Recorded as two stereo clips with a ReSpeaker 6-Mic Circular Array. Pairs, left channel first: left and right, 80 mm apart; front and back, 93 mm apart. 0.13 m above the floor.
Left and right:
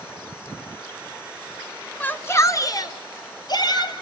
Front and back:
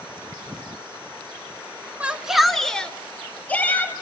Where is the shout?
130° left, 1.2 m; by 3.9 s 70° left, 3 m.